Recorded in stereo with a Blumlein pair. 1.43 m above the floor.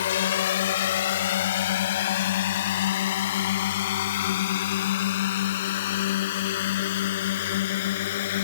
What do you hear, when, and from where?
0.0 s a drone: 60° left; by 8.4 s 55° left